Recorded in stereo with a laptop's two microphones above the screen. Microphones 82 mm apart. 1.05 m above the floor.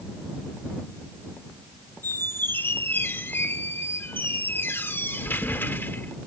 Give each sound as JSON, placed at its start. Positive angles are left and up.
{"t": 2.0, "sound": "a squeak", "side_deg": 25}